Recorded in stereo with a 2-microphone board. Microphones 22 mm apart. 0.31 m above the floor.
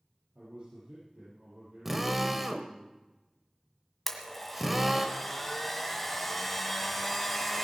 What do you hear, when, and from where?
0.3 s a man speaking: 85° right, 7 m
1.9 s a drill: 10° right (ahead or behind), 1.3 m
4.1 s a blender: 5° left (ahead or behind), 1.8 m